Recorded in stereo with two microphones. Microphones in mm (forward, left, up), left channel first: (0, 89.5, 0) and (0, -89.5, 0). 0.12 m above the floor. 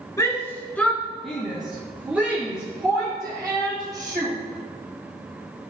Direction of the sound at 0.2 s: 15° left (ahead or behind).